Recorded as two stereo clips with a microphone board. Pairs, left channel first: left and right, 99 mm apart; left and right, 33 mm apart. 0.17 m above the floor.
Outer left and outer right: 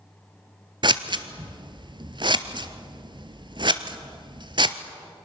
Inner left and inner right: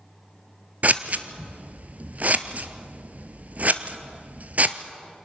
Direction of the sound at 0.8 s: 50° right (ahead or behind).